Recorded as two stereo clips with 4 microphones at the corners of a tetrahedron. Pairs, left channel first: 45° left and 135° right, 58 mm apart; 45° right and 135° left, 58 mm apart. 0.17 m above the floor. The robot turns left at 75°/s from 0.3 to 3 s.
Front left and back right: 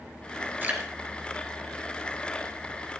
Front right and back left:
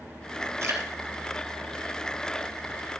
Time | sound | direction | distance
0.6 | dripping | 170° left | 2.5 m